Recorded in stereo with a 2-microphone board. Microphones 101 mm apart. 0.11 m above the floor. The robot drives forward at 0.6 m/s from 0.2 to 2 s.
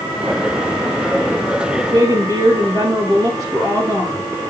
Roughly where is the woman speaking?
Right.